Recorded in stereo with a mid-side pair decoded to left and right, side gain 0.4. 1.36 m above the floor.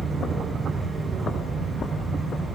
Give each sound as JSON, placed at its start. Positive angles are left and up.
{"t": 0.0, "sound": "a fan", "azimuth_deg": 0, "distance_m": 2.0}